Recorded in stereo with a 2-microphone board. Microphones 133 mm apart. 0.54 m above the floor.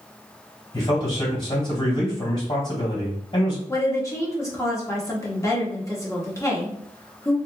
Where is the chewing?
I don't hear chewing.